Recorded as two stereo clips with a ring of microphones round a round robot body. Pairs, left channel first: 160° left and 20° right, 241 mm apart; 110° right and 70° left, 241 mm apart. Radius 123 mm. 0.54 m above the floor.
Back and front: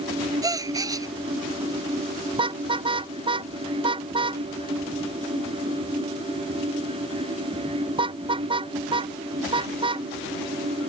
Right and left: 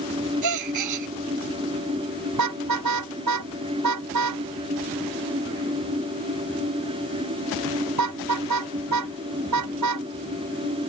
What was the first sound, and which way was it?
A gasp, 55° left.